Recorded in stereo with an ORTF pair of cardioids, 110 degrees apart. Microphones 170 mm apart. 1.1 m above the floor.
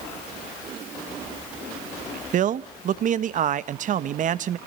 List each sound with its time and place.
2.3 s a man speaking: 50° right, 1.1 m